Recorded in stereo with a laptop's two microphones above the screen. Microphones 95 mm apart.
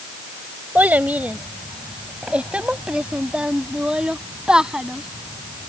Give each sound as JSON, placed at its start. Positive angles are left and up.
{"t": 0.8, "sound": "a child speaking", "side_deg": -15}